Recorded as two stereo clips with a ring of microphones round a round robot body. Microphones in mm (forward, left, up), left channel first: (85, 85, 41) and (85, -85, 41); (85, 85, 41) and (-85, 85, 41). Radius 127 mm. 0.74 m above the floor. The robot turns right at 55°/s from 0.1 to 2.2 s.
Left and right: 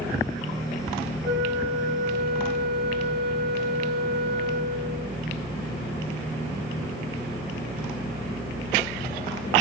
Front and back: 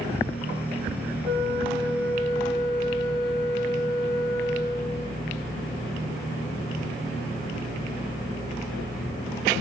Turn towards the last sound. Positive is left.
turn(degrees=-75)